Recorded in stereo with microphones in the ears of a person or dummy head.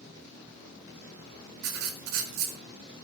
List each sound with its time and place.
1.6 s writing: 80° right, 3 m